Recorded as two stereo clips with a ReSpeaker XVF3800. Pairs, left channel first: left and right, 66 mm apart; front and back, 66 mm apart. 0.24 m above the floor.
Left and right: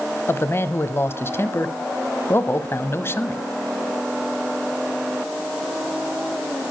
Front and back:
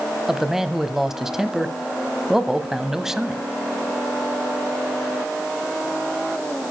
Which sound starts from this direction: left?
A man speaking, at 0.3 s.